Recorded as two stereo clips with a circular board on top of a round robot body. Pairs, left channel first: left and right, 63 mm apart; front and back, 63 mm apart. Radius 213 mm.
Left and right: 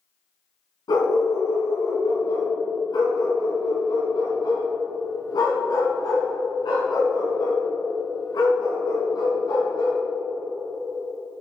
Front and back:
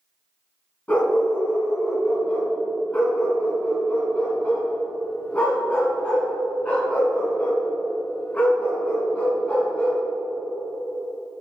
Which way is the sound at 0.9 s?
70° left.